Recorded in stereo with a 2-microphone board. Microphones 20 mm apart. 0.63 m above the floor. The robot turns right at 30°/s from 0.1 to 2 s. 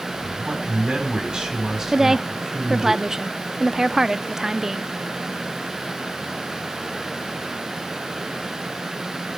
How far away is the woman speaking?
About 0.7 m.